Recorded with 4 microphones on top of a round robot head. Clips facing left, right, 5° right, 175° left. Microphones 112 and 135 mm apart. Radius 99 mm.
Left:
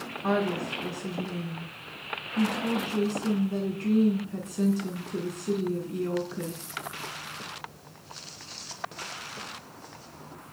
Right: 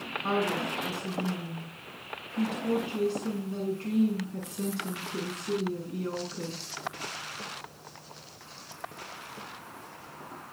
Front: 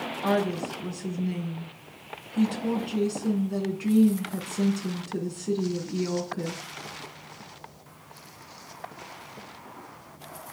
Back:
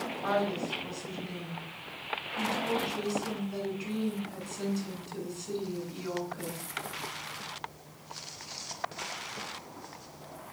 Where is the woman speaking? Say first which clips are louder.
Left 2 dB, front 4 dB; 30° left, 9 m.